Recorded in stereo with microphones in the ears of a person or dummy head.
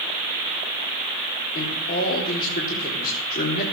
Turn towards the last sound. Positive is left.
turn(degrees=50)  # may be behind; listen again after turning